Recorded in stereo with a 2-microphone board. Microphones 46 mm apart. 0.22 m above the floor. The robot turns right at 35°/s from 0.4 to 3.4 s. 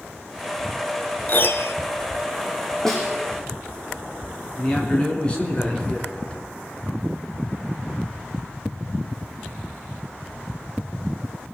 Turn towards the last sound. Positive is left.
turn(degrees=25)  # may be behind; listen again after turning